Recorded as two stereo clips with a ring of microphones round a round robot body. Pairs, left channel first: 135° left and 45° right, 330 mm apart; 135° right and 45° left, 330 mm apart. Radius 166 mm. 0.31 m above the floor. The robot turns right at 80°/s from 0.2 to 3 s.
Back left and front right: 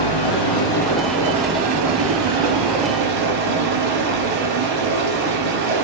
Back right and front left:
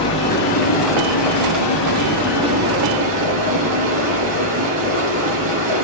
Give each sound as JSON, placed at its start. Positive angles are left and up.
{"t": 0.0, "sound": "running water", "azimuth_deg": 150, "distance_m": 3.5}